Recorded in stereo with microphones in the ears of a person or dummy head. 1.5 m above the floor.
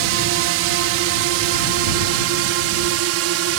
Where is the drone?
70° right (ahead or behind).